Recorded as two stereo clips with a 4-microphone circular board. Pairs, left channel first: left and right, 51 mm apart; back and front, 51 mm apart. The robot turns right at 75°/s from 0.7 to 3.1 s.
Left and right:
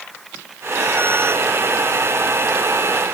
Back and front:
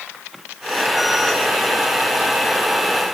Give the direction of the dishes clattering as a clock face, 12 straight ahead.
I don't hear dishes clattering.